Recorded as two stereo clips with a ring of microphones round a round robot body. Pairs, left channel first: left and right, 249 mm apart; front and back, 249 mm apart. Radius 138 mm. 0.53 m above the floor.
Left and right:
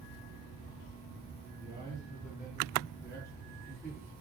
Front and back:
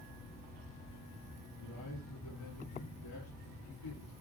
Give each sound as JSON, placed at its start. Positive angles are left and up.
{"t": 1.6, "sound": "a man speaking", "azimuth_deg": 10, "distance_m": 7.5}